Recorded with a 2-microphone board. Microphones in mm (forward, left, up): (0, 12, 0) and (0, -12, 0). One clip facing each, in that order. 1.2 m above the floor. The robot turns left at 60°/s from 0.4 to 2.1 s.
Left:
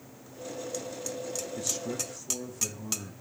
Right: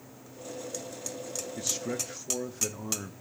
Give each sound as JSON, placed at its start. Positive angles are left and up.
{"t": 1.6, "sound": "a man speaking", "azimuth_deg": -10, "distance_m": 1.0}